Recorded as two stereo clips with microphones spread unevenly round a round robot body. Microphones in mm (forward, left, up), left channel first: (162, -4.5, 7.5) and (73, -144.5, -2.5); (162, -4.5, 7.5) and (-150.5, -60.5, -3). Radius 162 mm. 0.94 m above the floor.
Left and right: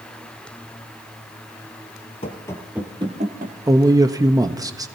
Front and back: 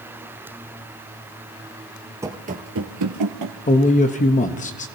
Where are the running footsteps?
110° left, 1.4 m; by 3.5 s 165° right, 1.8 m.